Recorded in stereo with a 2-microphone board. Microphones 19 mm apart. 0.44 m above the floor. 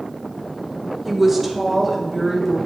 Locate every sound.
1.1 s a woman speaking: 20° right (ahead or behind), 1.1 m; by 2.6 s 10° right (ahead or behind), 2.5 m